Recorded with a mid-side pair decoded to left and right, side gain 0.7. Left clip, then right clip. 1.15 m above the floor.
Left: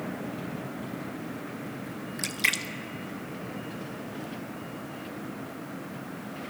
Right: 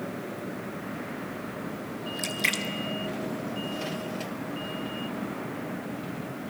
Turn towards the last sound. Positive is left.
turn(degrees=10)